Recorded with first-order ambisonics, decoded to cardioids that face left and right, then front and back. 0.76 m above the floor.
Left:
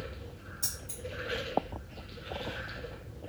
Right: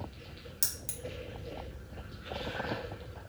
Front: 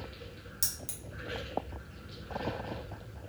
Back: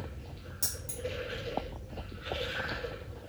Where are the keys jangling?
65° right, 0.8 m.